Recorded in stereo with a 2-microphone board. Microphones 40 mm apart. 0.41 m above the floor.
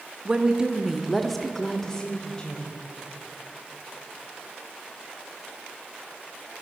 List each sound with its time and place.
0.2 s a woman speaking: 25° right (ahead or behind), 0.8 m; by 2.8 s 25° left (ahead or behind), 1.3 m